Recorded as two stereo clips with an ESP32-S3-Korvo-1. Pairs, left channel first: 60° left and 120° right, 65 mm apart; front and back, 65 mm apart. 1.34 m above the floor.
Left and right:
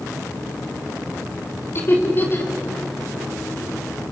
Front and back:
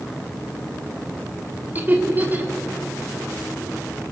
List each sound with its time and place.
1.8 s laughter: 115° left, 3.5 m